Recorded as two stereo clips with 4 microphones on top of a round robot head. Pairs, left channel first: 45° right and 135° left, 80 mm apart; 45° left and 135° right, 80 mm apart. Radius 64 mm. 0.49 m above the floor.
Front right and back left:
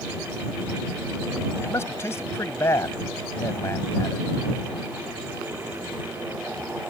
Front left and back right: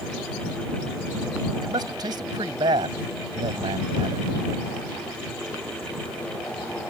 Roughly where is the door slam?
No door slam in this recording.